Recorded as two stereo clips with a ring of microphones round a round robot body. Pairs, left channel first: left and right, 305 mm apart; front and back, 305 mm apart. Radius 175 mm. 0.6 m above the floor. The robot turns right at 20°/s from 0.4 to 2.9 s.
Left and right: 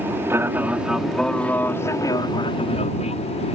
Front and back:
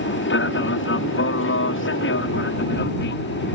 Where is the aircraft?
10° right; by 3.5 s 30° left.